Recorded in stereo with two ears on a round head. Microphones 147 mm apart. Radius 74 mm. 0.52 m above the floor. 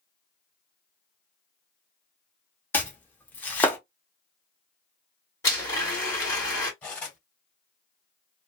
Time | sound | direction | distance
2.7 | chopping | 10° left (ahead or behind) | 0.7 m
5.4 | a blender | 20° left (ahead or behind) | 1.6 m
6.8 | cutlery clinking | 10° left (ahead or behind) | 1.5 m